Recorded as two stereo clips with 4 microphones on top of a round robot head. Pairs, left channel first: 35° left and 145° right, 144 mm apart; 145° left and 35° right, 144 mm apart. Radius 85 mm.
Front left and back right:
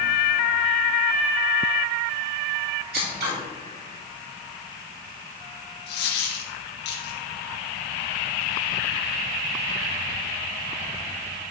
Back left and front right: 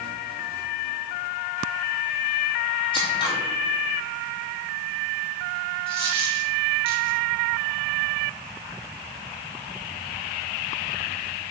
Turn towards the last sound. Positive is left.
turn(degrees=20)